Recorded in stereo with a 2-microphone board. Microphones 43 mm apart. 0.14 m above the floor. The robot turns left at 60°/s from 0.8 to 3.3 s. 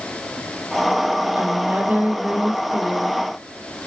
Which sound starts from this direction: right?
A woman speaking, at 1.4 s.